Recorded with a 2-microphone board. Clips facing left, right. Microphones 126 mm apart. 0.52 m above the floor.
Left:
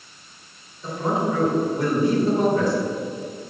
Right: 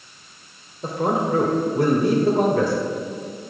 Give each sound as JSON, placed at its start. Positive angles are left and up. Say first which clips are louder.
{"t": 0.8, "sound": "a man speaking", "louder": "right 2 dB", "side_deg": -55, "distance_m": 1.6}